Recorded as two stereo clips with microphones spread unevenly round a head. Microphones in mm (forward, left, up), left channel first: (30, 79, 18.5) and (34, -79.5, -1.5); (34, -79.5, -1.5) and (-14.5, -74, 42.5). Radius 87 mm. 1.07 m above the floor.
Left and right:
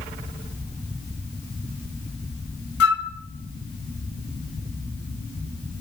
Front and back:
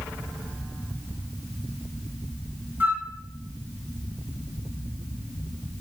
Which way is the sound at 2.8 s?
90° left.